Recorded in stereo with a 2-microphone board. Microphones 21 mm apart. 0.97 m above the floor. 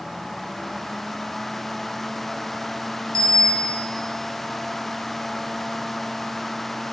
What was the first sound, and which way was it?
A bicycle bell, 45° left (ahead or behind).